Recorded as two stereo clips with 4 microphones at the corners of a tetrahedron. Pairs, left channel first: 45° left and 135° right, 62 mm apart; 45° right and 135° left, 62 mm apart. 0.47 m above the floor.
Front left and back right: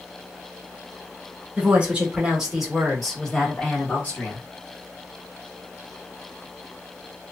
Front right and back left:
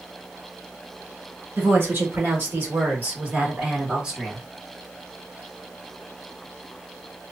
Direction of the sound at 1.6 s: 165° left.